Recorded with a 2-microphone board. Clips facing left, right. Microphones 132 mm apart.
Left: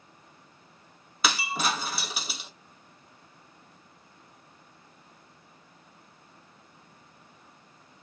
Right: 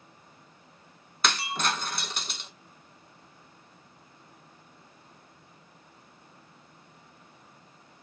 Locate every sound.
1.2 s breaking glass: 5° left (ahead or behind), 0.6 m